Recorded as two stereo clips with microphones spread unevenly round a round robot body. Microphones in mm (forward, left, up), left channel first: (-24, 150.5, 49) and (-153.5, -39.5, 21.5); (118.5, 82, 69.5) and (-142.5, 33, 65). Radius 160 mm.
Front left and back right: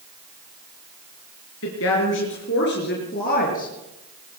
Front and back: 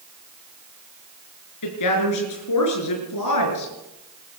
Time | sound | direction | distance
1.6 | a woman speaking | 10° left | 5 m